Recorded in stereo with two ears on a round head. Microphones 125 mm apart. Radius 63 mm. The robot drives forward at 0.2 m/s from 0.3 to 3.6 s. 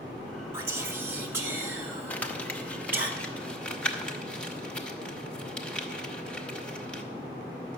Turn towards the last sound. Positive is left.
turn(degrees=10)  # may be behind; listen again after turning